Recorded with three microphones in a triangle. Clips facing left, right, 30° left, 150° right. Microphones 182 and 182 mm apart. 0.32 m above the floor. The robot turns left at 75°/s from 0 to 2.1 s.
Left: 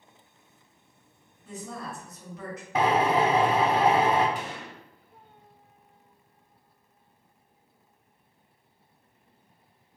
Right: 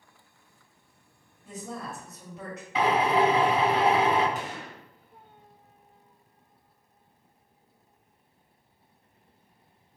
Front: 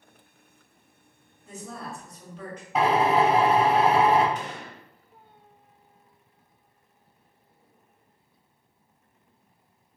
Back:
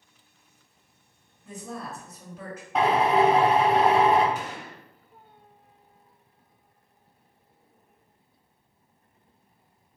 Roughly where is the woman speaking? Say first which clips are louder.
Even, back 1 dB; ahead right.